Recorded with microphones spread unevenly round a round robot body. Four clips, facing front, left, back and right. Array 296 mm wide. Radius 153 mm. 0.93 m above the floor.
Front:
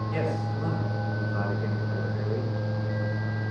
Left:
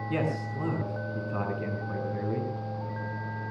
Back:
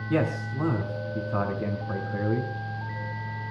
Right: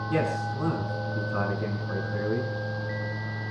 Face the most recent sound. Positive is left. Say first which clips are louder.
# right 3 dB, back 5 dB
turn(degrees=175)